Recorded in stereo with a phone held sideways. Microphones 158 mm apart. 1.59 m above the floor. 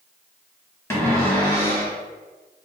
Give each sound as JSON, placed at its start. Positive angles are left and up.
{"t": 0.9, "sound": "a cupboard door", "side_deg": 15, "distance_m": 0.9}